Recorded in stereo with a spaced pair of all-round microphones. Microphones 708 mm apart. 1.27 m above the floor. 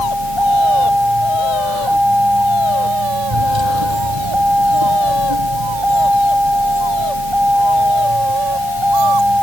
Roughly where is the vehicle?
Right.